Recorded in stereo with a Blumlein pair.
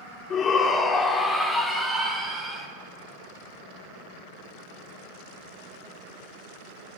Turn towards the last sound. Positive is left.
turn(degrees=-15)